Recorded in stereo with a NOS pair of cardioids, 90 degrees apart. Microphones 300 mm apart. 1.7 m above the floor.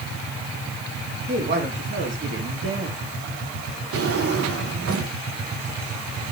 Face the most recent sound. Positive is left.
turn(degrees=-50)